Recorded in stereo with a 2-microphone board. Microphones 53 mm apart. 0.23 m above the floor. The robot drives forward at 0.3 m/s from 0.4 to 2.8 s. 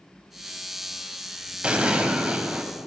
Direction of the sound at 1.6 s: 20° right (ahead or behind).